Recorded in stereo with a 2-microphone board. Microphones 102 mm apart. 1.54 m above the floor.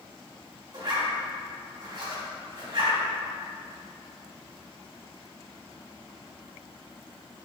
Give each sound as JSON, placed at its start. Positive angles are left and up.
{"t": 0.7, "sound": "a zipper", "side_deg": -45, "distance_m": 2.0}